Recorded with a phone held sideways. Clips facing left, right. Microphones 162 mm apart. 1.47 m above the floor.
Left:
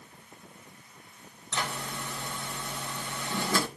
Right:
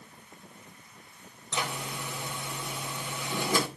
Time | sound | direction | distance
1.5 | a zipper | 15° right (ahead or behind) | 3.5 m